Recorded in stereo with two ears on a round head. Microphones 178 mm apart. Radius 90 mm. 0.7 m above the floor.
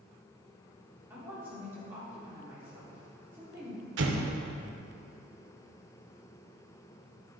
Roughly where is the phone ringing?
No phone ringing in this recording.